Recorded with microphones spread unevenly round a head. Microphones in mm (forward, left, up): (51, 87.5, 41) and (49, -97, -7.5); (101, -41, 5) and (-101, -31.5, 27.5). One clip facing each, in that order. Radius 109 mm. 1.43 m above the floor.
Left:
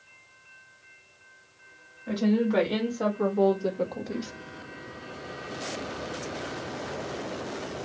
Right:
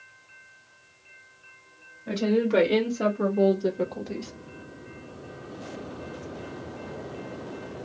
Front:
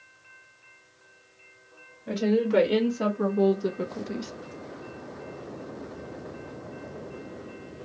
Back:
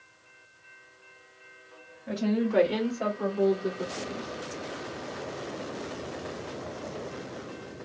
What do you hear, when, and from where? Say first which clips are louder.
2.1 s a woman speaking: right 1 dB, front 3 dB; 45° right, 1.5 m; by 4.3 s 10° left, 0.5 m